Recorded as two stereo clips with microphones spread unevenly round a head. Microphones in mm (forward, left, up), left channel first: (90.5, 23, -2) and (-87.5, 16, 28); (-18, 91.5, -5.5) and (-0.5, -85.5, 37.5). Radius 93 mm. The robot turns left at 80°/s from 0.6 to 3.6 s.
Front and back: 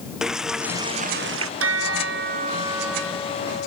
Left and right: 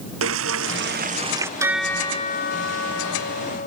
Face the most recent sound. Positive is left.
turn(degrees=45)